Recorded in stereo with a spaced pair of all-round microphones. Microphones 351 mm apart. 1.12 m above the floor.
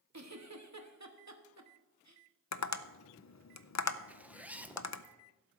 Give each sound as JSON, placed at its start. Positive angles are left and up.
{"t": 0.1, "sound": "a giggle", "side_deg": -50, "distance_m": 1.0}
{"t": 2.5, "sound": "tapping", "side_deg": 50, "distance_m": 0.5}
{"t": 4.1, "sound": "a zipper", "side_deg": -5, "distance_m": 0.5}